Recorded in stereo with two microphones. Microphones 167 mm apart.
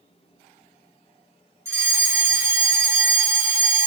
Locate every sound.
1.6 s a fire alarm: 15° right (ahead or behind), 2.5 m